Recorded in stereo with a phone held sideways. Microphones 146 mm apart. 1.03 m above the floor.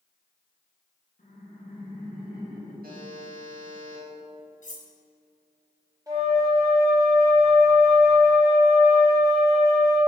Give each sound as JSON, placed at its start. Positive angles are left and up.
{"t": 1.2, "sound": "laughter", "side_deg": 70, "distance_m": 1.3}
{"t": 2.8, "sound": "a buzzer", "side_deg": -80, "distance_m": 1.3}
{"t": 4.6, "sound": "cutlery clinking", "side_deg": 60, "distance_m": 0.8}
{"t": 6.1, "sound": "a flute", "side_deg": -20, "distance_m": 1.3}